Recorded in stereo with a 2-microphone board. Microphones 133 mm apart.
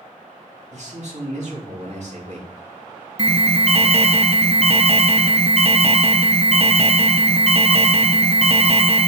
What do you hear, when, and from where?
0.7 s a man speaking: 55° right (ahead or behind), 2.5 m
3.2 s an alarm: 45° right (ahead or behind), 0.6 m